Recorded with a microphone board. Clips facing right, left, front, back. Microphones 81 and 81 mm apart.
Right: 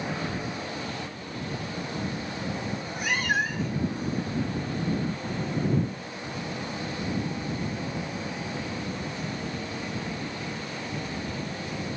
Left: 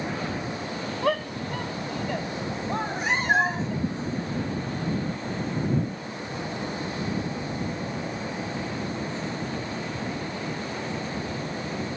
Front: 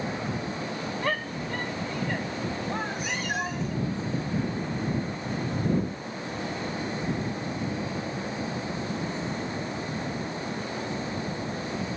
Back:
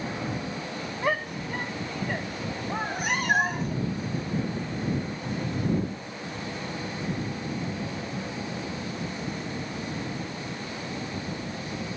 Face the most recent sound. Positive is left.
turn(degrees=150)